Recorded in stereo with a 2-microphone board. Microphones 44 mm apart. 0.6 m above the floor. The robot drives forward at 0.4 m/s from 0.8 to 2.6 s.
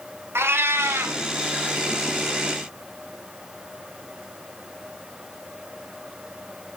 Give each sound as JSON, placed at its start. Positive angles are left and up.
{"t": 0.3, "sound": "a cat meowing", "side_deg": -70, "distance_m": 0.8}